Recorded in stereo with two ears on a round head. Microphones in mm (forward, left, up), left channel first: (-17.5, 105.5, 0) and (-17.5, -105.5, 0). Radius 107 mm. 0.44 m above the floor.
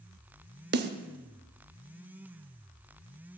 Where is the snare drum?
40° right (ahead or behind), 0.7 m.